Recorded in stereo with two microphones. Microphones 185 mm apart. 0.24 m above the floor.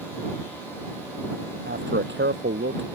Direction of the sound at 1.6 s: 80° right.